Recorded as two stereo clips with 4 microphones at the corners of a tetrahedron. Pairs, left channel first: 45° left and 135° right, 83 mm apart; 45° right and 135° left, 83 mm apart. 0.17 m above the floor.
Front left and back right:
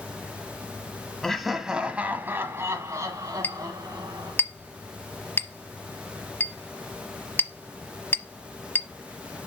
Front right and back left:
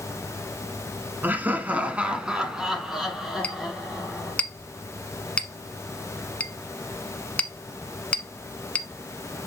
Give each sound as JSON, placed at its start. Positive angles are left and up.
{"t": 1.2, "sound": "laughter", "azimuth_deg": 120, "distance_m": 1.1}
{"t": 3.4, "sound": "a clink", "azimuth_deg": 10, "distance_m": 0.9}